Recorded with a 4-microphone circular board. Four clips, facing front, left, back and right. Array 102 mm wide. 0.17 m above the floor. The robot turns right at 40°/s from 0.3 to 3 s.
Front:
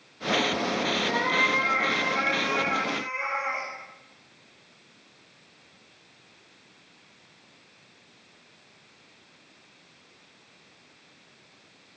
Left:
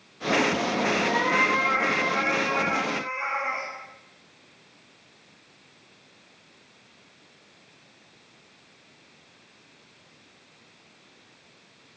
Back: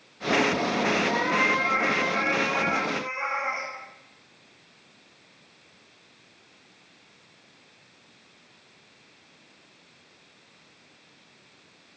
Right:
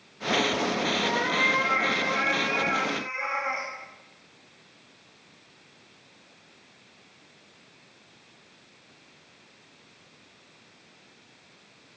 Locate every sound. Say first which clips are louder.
1.0 s a cat meowing: left 3 dB, back 1 dB; 70° left, 3.5 m; by 3.7 s 150° left, 3.5 m